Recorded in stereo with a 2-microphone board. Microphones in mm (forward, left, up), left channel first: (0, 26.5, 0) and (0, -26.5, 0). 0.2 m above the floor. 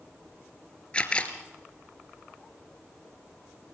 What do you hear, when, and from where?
0.9 s a camera shutter: 25° left (ahead or behind), 1.8 m